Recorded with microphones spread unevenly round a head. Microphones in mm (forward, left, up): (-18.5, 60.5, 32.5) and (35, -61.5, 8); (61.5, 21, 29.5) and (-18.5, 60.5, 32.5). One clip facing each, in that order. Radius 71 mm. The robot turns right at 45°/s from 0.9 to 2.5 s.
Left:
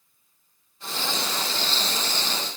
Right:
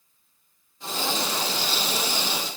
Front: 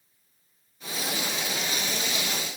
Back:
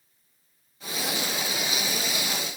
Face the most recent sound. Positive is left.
No sound to turn to.